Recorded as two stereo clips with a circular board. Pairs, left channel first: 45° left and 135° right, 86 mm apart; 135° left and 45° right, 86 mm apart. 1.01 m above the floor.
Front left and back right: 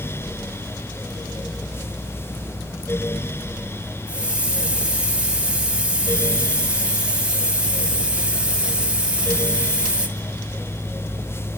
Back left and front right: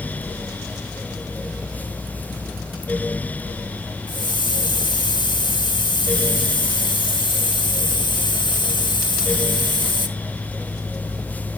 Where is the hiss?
150° left, 1.1 m.